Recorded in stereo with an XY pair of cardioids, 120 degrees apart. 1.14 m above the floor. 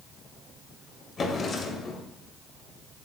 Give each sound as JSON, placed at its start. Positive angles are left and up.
{"t": 1.2, "sound": "a drawer", "azimuth_deg": 35, "distance_m": 2.0}